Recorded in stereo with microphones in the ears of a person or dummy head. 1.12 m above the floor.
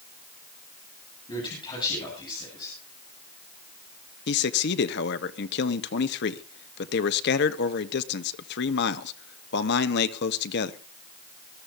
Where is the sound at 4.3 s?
55° left (ahead or behind), 1.4 m.